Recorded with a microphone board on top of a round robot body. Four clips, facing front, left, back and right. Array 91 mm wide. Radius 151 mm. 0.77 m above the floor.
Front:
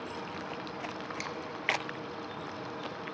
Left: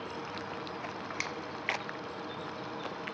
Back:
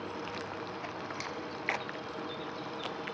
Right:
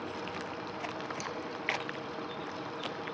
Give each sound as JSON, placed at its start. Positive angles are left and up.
{"t": 1.2, "sound": "a finger snap", "azimuth_deg": 85, "distance_m": 0.7}